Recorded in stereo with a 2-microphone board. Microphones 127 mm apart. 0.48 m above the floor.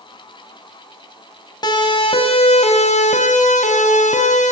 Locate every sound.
1.6 s a siren: 35° left (ahead or behind), 3.5 m; by 4.5 s 70° left (ahead or behind), 4 m